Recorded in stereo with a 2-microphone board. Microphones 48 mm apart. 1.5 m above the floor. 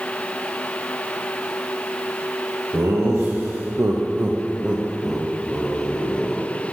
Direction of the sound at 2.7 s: 65° right (ahead or behind).